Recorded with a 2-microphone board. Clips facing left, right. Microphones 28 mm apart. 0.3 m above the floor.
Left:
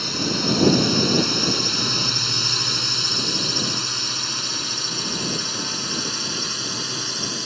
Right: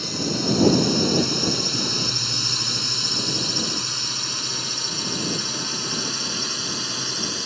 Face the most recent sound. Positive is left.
turn(degrees=0)  # may be behind; listen again after turning